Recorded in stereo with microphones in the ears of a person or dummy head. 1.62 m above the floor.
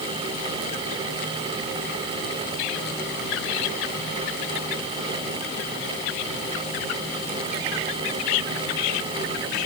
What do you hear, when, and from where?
Only background noise.